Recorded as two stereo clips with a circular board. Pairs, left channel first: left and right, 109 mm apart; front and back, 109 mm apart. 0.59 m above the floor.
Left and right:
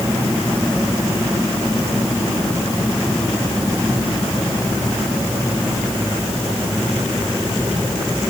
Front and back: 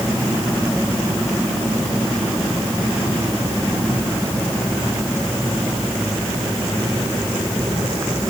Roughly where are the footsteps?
No footsteps in this recording.